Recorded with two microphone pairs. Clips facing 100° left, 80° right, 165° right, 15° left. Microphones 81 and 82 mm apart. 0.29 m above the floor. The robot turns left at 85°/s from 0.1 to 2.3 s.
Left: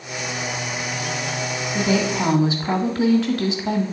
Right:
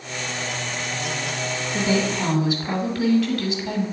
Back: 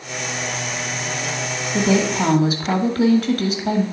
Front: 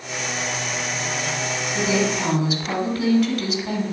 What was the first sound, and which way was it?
A woman speaking, 145° right.